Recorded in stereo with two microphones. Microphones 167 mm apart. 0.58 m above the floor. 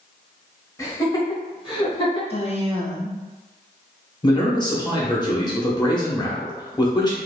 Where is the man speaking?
25° left (ahead or behind), 1.1 m.